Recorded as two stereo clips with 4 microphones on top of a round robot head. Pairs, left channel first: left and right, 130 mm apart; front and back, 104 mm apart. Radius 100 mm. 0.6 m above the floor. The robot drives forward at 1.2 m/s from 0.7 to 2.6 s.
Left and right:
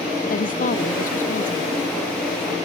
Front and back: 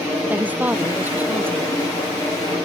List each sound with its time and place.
0.3 s a woman speaking: 105° left; by 1.8 s 110° left